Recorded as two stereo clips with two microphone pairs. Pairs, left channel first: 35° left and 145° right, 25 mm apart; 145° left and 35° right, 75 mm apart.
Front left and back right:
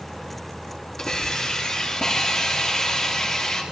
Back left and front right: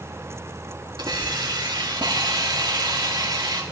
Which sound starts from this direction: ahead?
A hiss, at 1.0 s.